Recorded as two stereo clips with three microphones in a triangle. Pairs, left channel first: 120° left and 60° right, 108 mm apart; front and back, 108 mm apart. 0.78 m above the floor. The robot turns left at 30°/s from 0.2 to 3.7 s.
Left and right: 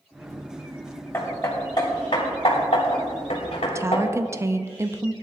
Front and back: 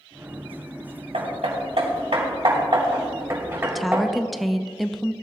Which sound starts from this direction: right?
A woman speaking, at 3.7 s.